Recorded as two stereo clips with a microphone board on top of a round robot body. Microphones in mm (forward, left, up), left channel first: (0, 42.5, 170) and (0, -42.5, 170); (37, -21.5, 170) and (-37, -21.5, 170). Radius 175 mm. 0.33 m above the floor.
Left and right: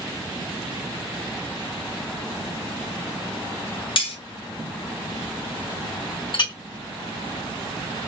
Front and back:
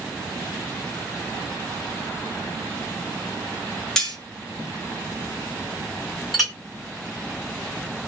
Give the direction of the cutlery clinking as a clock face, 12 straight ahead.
9 o'clock.